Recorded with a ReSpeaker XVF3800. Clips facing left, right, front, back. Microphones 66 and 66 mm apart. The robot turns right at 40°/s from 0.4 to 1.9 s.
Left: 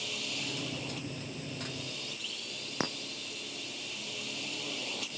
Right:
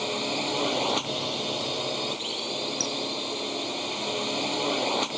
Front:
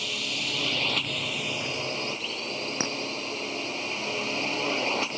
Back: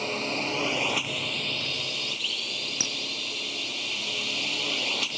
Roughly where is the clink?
Ahead left.